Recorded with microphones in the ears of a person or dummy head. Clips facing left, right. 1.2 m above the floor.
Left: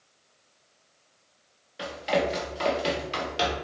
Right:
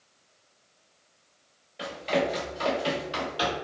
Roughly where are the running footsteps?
Centre.